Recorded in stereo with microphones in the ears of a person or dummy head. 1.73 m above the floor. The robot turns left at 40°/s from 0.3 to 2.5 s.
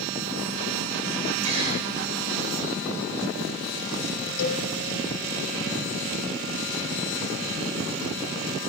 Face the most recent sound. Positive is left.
turn(degrees=70)  # may be behind; listen again after turning